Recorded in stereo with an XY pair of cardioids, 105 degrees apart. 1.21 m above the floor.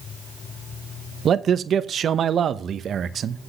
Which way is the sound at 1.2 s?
50° right.